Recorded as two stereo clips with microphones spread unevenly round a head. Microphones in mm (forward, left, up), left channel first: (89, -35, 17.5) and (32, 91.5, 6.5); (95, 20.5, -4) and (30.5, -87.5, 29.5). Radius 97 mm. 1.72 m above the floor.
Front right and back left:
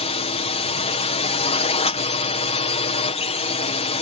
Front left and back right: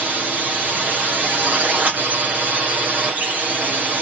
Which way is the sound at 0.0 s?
35° right.